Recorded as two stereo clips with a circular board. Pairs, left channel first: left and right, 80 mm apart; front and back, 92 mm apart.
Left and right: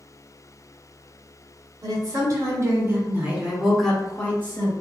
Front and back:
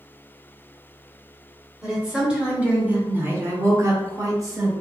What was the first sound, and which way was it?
A woman speaking, 95° right.